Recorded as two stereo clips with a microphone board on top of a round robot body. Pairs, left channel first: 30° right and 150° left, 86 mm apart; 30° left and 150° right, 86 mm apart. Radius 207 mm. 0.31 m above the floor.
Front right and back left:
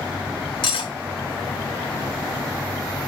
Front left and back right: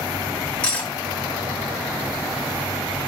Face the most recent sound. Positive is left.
turn(degrees=-45)